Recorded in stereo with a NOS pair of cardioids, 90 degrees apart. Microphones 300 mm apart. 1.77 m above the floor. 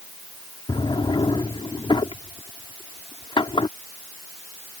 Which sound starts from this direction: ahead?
A drawer, at 0.7 s.